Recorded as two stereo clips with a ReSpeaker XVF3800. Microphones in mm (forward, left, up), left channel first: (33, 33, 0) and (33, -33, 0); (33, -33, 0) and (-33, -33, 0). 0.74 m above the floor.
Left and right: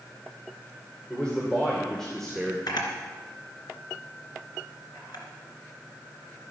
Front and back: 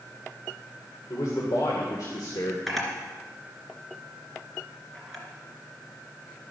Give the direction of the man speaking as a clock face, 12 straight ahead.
11 o'clock.